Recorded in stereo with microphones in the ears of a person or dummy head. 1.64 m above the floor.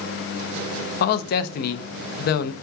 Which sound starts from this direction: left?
A man speaking, at 1.0 s.